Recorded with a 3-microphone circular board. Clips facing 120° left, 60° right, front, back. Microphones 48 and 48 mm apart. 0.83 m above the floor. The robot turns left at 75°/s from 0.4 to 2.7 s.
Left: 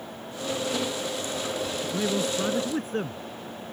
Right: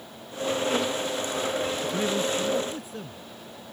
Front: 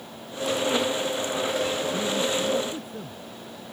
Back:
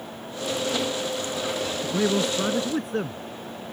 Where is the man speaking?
135° right; by 3.2 s 160° left.